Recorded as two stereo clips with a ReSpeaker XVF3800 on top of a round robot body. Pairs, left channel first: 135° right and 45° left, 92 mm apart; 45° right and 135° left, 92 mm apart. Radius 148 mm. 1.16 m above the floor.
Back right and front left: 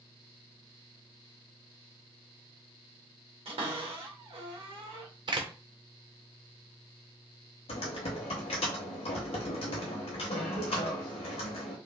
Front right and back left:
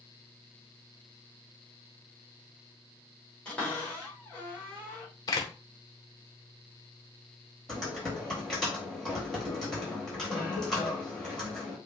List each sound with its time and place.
3.5 s a cupboard door: 35° left, 1.9 m
5.3 s a door slam: 5° left, 0.7 m
7.7 s typing on a keyboard: 130° right, 0.9 m